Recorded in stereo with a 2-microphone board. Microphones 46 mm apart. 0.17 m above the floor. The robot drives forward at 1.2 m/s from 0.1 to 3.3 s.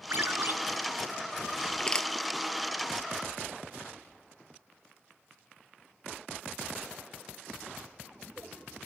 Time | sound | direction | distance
0.1 | a ringtone | 55° right (ahead or behind) | ?
1.8 | crushing | 20° left (ahead or behind) | ?